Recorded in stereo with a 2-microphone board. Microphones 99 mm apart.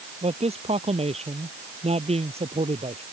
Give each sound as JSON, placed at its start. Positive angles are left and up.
{"t": 0.2, "sound": "a man speaking", "side_deg": -80}